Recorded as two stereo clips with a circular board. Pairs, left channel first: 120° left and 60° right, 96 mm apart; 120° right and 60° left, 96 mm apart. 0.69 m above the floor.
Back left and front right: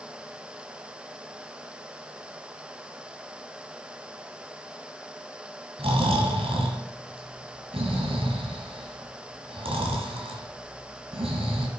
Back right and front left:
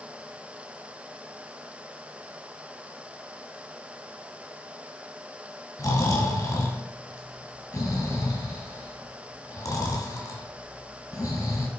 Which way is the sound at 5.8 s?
65° right.